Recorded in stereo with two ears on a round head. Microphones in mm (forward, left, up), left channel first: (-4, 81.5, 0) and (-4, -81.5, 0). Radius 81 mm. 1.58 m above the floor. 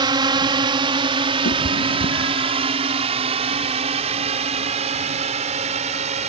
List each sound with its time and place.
0.0 s a drone: 25° right (ahead or behind); by 6.3 s 40° right (ahead or behind)
1.4 s a cat meowing: 75° left (ahead or behind)